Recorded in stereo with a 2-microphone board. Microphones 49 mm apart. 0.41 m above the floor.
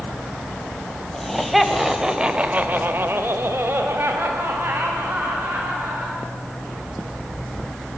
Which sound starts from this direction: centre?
Laughter, at 1.1 s.